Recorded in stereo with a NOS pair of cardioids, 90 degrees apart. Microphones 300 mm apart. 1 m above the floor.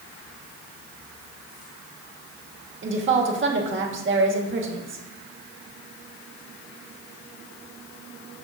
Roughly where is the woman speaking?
Ahead right.